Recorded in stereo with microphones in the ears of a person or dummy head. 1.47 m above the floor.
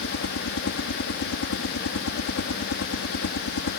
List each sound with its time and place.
0.0 s a helicopter: 65° left (ahead or behind)